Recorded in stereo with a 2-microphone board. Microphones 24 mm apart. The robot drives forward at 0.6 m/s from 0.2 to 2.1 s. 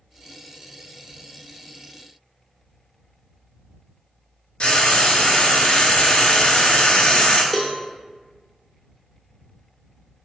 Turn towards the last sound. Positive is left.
turn(degrees=25)  # may be behind; listen again after turning